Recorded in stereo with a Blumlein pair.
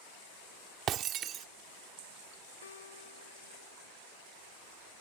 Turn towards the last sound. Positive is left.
turn(degrees=65)